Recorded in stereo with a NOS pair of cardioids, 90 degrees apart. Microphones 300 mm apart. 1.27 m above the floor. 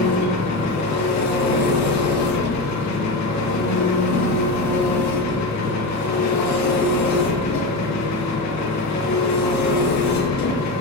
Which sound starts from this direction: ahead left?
An engine running, at 0.0 s.